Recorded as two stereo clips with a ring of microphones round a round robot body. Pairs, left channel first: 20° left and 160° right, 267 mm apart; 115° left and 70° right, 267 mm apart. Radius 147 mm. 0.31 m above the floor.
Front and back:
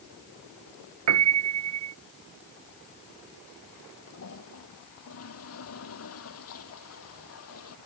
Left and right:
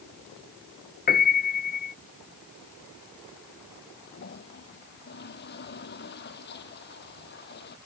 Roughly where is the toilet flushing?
Ahead left.